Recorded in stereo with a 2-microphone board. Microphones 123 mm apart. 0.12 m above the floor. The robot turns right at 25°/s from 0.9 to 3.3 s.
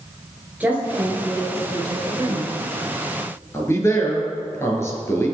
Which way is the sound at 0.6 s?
160° right.